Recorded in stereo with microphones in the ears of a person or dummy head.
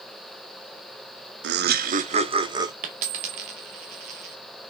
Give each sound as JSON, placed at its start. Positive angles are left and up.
{"t": 1.4, "sound": "laughter", "side_deg": -55, "distance_m": 0.6}
{"t": 2.8, "sound": "a dropped coin", "side_deg": -25, "distance_m": 0.7}